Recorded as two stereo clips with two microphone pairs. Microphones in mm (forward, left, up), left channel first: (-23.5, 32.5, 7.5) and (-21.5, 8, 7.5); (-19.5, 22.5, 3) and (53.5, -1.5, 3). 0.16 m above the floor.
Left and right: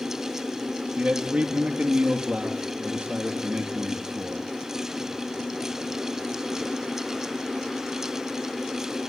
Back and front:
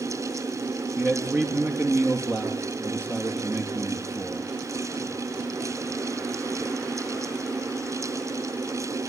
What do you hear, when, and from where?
1.0 s a man speaking: 75° right, 3.5 m